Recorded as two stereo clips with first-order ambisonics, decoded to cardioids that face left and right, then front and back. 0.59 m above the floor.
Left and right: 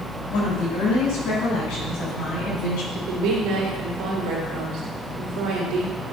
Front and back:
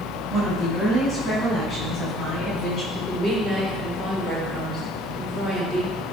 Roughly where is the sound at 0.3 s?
Left.